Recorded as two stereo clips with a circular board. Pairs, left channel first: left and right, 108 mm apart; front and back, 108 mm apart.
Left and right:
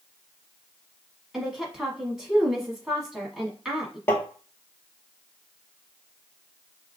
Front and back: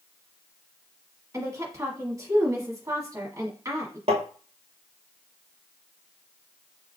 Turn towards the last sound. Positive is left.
turn(degrees=160)